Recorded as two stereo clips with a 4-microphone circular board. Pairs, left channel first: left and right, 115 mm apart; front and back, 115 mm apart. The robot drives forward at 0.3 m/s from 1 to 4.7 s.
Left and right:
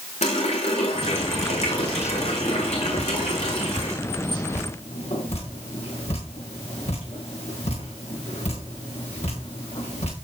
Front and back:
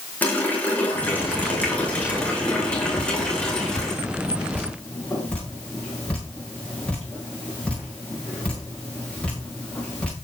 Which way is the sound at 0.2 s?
75° left.